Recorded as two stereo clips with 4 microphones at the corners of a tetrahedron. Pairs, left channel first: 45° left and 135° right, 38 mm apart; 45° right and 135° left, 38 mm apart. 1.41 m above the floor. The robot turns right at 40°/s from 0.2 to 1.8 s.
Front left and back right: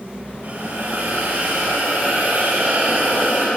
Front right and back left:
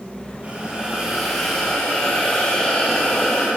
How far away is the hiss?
About 9 m.